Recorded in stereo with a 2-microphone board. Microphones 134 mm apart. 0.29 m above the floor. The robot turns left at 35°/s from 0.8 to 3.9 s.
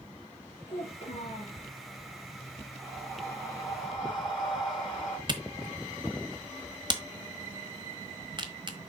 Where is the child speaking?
65° left (ahead or behind), 3.5 m; by 1.6 s 40° left (ahead or behind), 3.5 m.